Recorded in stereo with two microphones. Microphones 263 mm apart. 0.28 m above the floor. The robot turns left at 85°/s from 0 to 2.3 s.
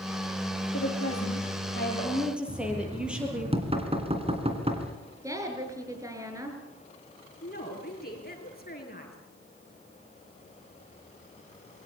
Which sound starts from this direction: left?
A woman speaking, at 7.4 s.